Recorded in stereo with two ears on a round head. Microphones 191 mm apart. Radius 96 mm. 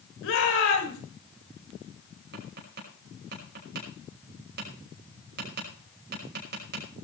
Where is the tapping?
50° right (ahead or behind), 5.5 m.